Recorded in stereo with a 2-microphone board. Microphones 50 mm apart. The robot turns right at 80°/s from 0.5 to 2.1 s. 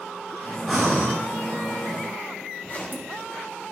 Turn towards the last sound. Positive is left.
turn(degrees=40)  # may be behind; listen again after turning